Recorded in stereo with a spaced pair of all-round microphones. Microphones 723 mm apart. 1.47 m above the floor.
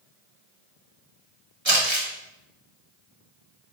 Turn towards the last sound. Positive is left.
turn(degrees=-40)  # may be behind; listen again after turning